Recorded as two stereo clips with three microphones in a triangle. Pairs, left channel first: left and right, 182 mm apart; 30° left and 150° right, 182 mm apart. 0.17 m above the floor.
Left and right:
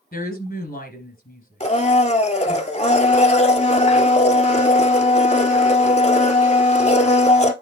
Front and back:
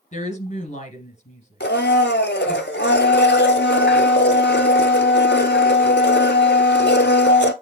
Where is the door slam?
No door slam in this recording.